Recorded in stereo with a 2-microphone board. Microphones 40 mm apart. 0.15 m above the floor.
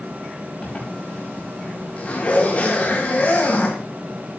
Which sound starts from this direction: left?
A zipper, at 0.6 s.